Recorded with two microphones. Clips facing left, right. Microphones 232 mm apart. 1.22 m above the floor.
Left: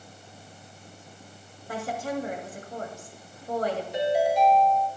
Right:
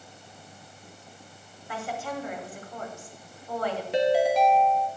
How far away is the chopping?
No chopping in this recording.